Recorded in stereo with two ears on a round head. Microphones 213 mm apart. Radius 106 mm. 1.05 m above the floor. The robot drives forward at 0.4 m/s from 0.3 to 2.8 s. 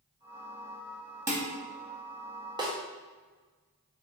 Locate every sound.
1.3 s dishes clattering: 15° right (ahead or behind), 1.2 m
2.6 s a snare drum: 20° right (ahead or behind), 0.7 m; by 2.8 s 15° right (ahead or behind), 0.7 m